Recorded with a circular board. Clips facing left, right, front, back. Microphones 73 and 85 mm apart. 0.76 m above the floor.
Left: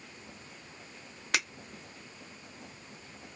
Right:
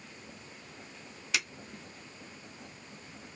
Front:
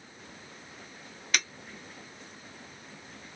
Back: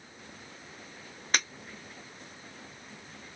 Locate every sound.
1.3 s breaking glass: 125° left, 1.6 m